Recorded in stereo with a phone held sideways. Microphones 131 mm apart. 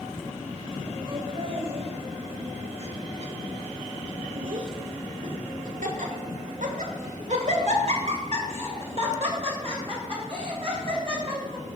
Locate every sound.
1.1 s laughter: 40° right (ahead or behind), 3 m